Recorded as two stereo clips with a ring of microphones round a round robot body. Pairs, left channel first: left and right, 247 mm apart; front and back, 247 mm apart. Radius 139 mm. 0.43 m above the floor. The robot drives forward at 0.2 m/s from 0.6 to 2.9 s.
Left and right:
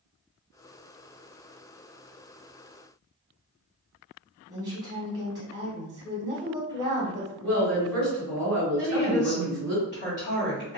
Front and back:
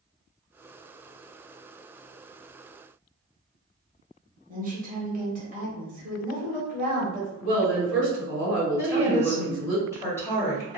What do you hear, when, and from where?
4.5 s a woman speaking: 155° right, 1.1 m
7.4 s a woman speaking: 170° left, 1.9 m
8.8 s a woman speaking: 75° left, 1.4 m